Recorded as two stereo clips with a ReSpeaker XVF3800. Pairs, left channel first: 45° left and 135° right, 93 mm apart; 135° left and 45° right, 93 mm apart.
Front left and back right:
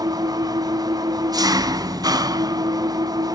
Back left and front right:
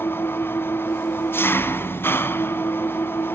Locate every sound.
0.0 s an engine running: 165° right, 0.8 m